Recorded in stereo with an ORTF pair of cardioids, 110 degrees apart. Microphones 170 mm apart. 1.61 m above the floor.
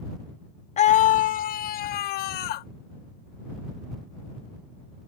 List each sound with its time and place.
0.8 s a scream: 40° left; by 2.7 s 75° left